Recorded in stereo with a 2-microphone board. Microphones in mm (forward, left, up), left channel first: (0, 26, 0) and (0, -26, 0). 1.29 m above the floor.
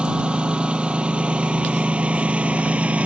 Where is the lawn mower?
20° right (ahead or behind); by 3.1 s 25° right (ahead or behind).